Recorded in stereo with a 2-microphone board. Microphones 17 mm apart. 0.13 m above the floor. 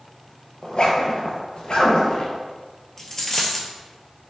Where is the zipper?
60° left (ahead or behind), 0.7 m.